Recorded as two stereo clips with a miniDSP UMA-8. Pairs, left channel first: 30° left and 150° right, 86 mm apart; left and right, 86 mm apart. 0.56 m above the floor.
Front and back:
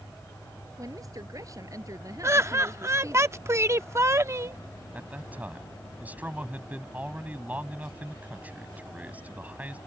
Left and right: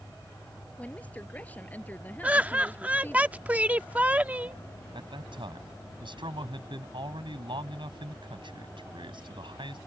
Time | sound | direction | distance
0.8 | a woman speaking | 165° left | ?
2.2 | laughter | 150° right | ?
4.9 | a man speaking | 80° right | ?